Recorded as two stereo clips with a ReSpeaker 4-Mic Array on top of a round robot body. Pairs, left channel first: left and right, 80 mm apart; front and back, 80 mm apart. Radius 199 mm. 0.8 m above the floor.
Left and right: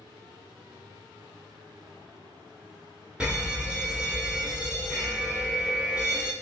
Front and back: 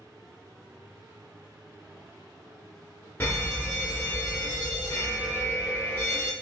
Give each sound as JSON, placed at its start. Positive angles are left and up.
{"t": 3.2, "sound": "a fire alarm", "azimuth_deg": -20, "distance_m": 1.4}